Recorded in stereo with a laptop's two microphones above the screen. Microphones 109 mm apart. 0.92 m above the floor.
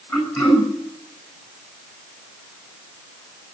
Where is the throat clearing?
30° left (ahead or behind), 8 m.